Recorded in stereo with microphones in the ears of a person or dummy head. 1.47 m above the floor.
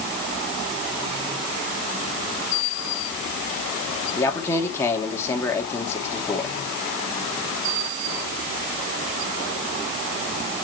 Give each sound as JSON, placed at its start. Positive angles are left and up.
{"t": 4.2, "sound": "a man speaking", "side_deg": 15, "distance_m": 2.5}